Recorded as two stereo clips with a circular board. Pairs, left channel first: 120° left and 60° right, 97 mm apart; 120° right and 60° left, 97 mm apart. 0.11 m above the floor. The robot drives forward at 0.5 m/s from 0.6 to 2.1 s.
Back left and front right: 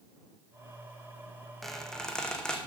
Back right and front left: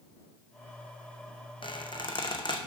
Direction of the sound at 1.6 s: 150° right.